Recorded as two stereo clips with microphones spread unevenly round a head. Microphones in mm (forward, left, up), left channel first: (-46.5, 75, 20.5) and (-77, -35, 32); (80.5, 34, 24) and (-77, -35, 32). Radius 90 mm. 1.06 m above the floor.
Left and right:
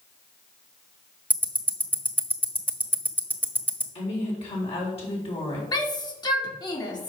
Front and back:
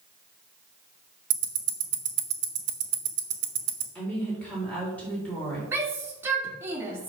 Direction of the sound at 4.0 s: 105° left.